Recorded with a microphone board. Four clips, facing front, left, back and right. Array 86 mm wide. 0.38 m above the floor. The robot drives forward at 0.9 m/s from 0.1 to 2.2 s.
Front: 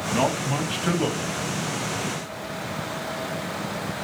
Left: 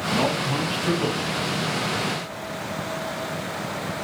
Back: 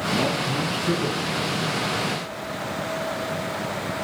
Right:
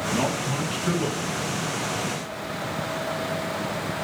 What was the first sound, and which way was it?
A man speaking, 5° left.